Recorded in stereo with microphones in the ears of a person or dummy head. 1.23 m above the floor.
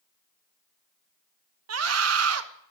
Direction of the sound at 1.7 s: 80° right.